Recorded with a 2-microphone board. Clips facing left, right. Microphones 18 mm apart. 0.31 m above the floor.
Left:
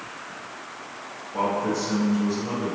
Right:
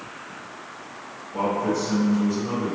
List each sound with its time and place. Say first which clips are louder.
1.3 s a man speaking: right 1 dB; 10° left (ahead or behind), 1.0 m; by 2.8 s 20° left (ahead or behind), 1.1 m